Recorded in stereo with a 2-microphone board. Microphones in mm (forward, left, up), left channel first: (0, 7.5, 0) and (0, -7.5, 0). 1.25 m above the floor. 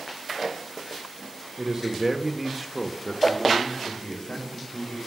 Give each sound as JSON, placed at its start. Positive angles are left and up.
{"t": 1.6, "sound": "a man speaking", "side_deg": -45, "distance_m": 1.2}